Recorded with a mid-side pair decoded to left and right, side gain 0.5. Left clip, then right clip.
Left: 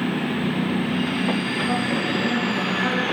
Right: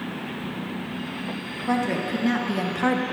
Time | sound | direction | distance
1.7 | a woman speaking | 55° right | 2.5 m